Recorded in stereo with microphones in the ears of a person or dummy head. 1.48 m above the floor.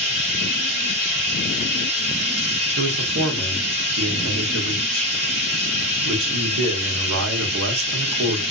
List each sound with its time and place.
0.0 s running water: 55° right (ahead or behind), 1.4 m
2.8 s a man speaking: 75° right (ahead or behind), 0.8 m